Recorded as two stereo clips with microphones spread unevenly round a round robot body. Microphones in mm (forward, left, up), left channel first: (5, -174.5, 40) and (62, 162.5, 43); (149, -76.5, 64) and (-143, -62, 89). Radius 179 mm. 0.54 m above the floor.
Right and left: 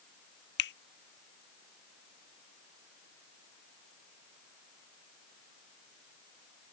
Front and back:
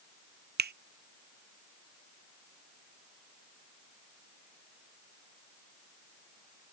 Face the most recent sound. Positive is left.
turn(degrees=-135)